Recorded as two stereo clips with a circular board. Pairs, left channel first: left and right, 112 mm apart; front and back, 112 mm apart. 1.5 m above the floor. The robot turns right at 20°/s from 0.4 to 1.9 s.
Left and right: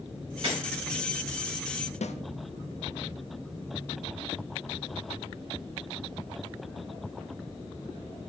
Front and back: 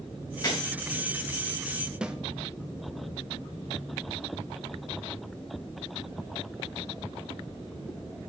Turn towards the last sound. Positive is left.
turn(degrees=100)